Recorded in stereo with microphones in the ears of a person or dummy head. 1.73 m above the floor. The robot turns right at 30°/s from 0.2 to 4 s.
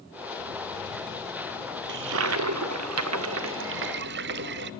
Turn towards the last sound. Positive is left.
turn(degrees=-60)